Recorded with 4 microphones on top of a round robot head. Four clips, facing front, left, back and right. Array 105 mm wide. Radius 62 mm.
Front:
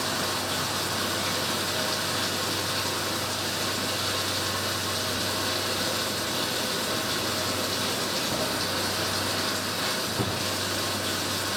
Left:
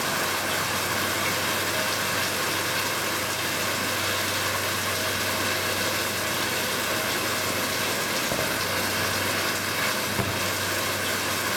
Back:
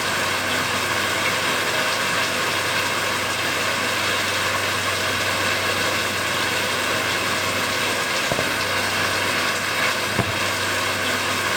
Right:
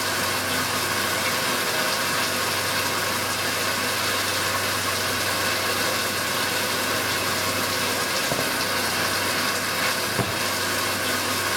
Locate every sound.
0.0 s running water: 165° right, 1.1 m